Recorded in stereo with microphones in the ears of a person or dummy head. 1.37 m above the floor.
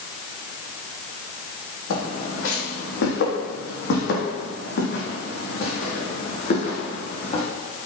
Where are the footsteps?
70° left (ahead or behind), 3.5 m; by 7.4 s 35° left (ahead or behind), 4 m.